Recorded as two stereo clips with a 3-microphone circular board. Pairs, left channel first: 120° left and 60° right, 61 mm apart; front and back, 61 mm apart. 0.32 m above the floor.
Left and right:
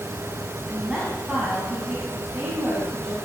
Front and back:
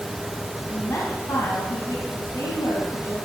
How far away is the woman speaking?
About 2 m.